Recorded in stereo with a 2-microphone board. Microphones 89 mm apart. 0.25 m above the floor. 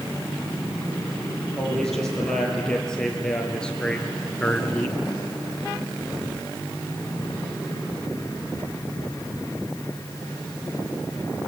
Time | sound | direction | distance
1.6 | a man speaking | 5° left (ahead or behind) | 6.5 m